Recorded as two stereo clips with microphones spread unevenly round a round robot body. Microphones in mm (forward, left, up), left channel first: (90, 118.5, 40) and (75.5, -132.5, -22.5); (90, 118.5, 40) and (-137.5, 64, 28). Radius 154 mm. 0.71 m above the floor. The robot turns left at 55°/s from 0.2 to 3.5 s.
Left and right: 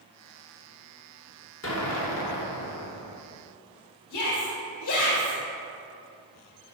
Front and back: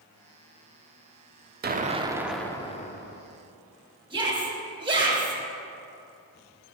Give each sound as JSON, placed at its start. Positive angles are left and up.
{"t": 1.6, "sound": "an explosion", "azimuth_deg": 145, "distance_m": 0.9}
{"t": 4.1, "sound": "a shout", "azimuth_deg": 125, "distance_m": 3.5}